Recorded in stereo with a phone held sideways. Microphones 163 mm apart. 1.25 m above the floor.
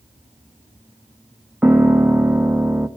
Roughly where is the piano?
Centre.